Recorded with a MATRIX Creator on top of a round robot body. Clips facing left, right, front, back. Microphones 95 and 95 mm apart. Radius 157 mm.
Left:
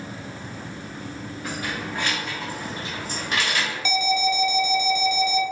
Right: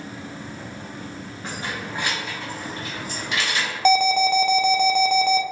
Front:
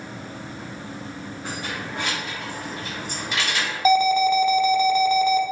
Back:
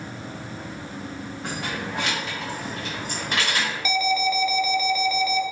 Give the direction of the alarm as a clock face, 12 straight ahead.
2 o'clock.